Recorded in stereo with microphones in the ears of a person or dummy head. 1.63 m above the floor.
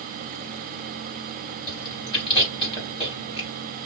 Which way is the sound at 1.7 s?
30° left (ahead or behind).